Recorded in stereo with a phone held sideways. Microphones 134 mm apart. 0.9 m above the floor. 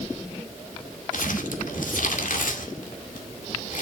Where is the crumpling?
80° left, 2 m.